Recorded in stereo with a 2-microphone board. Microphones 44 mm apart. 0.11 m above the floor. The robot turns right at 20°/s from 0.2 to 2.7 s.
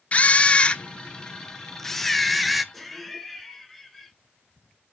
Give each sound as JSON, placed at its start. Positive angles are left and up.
{"t": 0.1, "sound": "a camera shutter", "azimuth_deg": 135, "distance_m": 0.7}
{"t": 2.7, "sound": "laughter", "side_deg": 0, "distance_m": 1.6}